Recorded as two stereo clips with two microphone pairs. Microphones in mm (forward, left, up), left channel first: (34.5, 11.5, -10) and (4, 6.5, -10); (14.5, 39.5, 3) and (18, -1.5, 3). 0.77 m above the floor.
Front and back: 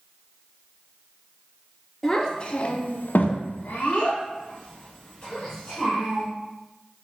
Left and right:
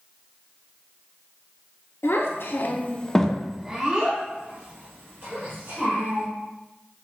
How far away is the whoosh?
No whoosh in this recording.